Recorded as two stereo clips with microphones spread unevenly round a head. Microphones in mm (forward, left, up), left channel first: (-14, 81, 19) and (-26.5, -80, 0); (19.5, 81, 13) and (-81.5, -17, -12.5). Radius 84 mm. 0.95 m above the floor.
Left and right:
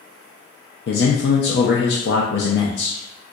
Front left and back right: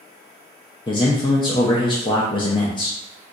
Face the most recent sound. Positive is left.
turn(degrees=105)